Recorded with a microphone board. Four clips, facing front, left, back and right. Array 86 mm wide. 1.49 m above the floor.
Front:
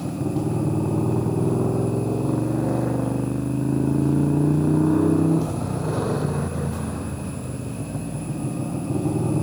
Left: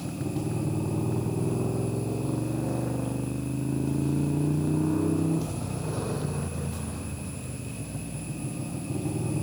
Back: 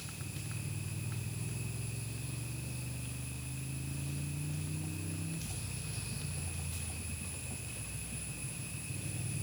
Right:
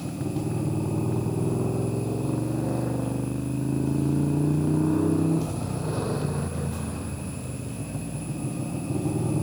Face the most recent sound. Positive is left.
turn(degrees=-15)